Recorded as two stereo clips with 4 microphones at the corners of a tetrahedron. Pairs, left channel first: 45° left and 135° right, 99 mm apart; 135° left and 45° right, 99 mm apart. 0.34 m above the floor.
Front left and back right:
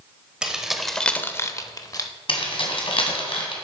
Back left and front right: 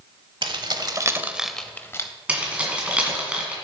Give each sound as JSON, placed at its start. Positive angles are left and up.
{"t": 0.4, "sound": "keys jangling", "azimuth_deg": -55, "distance_m": 0.9}
{"t": 2.3, "sound": "keys jangling", "azimuth_deg": 30, "distance_m": 1.9}